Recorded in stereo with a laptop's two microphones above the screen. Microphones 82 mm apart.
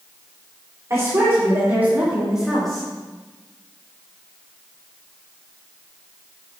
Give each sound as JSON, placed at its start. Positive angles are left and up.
{"t": 0.9, "sound": "a woman speaking", "side_deg": -35, "distance_m": 3.0}